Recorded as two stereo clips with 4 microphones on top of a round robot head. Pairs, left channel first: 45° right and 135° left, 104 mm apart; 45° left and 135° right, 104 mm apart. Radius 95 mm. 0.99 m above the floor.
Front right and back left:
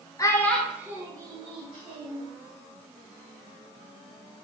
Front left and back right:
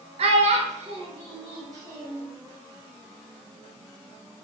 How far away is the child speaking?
About 0.7 m.